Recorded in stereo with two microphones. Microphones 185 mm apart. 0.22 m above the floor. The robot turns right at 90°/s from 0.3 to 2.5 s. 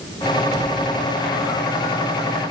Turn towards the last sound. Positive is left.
No sound to turn to.